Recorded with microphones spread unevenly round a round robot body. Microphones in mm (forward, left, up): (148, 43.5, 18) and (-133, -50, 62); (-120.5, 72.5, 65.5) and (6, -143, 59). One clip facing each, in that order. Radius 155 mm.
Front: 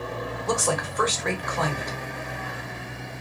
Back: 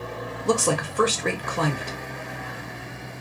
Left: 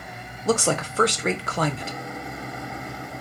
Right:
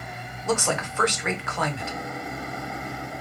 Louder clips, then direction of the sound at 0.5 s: Back 5 dB, left 3 dB; 150° left.